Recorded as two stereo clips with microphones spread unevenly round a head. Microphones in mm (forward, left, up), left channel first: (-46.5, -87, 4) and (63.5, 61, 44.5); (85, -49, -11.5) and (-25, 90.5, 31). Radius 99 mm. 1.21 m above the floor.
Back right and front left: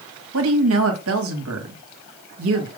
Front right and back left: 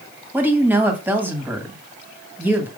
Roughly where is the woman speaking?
Ahead left.